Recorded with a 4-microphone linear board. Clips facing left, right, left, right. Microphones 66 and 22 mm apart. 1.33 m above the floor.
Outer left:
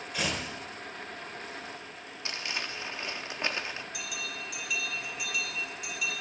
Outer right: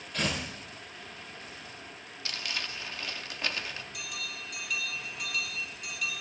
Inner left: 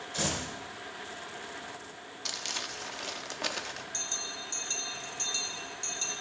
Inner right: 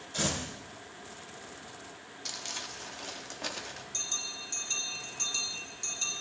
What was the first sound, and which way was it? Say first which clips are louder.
Tearing paper: outer right 1 dB, even; 10° left (ahead or behind).